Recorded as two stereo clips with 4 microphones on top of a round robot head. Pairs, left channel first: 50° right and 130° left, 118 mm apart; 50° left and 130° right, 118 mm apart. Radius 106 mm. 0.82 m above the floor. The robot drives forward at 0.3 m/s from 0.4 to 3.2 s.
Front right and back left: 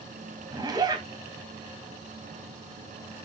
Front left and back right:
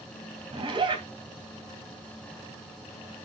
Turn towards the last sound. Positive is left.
turn(degrees=-175)